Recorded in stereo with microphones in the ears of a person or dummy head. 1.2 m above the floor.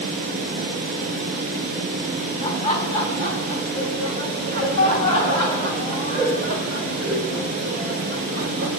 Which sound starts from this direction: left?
Laughter, at 2.4 s.